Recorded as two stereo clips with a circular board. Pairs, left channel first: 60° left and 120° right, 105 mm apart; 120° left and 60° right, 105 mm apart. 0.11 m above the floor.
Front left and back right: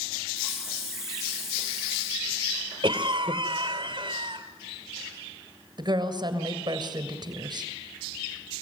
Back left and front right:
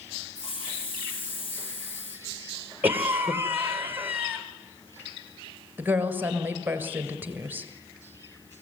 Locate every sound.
0.3 s a hiss: 155° left, 4.5 m
2.8 s a cough: 130° right, 2 m
5.8 s a woman speaking: 125° right, 2 m